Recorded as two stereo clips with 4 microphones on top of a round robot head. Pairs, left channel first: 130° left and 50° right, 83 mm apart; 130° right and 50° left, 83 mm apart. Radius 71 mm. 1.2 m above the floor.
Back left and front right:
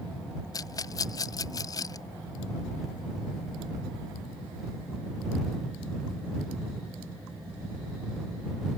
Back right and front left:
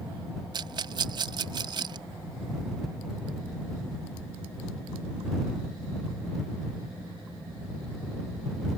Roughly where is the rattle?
Left.